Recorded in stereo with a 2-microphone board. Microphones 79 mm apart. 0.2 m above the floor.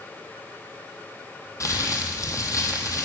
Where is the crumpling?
45° left (ahead or behind), 1.0 m.